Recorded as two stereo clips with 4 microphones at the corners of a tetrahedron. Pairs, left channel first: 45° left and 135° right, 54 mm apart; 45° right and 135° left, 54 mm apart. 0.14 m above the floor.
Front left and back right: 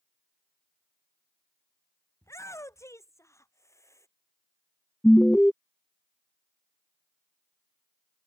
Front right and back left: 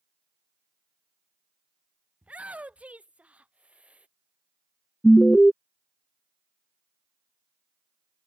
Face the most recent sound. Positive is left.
turn(degrees=-10)